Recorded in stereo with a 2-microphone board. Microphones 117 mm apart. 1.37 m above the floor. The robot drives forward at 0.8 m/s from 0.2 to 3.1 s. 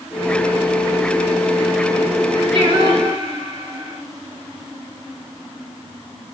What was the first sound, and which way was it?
Singing, 45° right (ahead or behind).